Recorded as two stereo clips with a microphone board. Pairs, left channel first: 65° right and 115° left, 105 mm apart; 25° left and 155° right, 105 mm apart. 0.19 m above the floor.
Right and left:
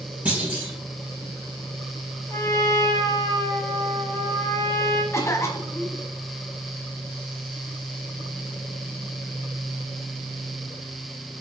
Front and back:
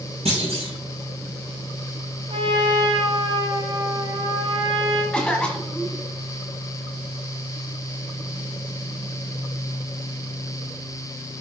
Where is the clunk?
170° right, 4 m.